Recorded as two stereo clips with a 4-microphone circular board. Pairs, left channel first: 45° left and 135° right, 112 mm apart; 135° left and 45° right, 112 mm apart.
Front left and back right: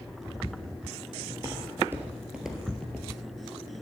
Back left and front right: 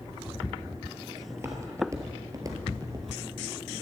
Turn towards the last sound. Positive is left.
turn(degrees=-25)